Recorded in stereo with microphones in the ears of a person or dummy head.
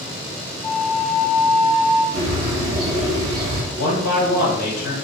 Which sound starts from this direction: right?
A bird, at 2.1 s.